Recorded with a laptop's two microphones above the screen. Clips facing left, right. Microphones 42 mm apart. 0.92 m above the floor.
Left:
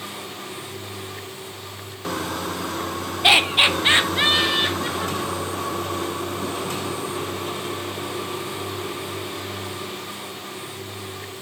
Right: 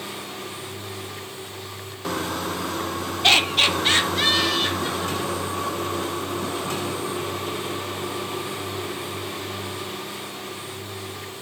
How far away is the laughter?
About 0.8 m.